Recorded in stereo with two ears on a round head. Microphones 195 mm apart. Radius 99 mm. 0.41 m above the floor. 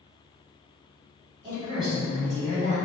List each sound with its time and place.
1.4 s a woman speaking: 15° right (ahead or behind), 1.6 m; by 2.8 s 40° right (ahead or behind), 1.8 m